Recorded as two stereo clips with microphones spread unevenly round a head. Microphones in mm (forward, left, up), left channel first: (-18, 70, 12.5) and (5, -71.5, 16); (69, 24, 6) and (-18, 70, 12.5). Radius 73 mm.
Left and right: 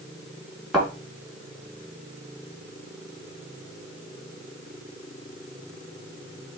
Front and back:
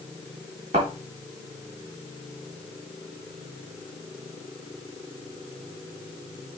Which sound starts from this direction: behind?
A thud, at 0.7 s.